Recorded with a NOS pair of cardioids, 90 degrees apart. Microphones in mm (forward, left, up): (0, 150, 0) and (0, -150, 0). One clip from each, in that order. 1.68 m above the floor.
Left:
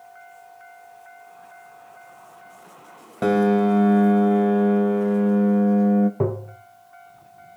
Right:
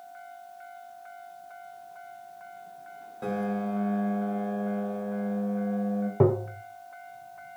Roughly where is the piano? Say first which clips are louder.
Left 12 dB; ahead left.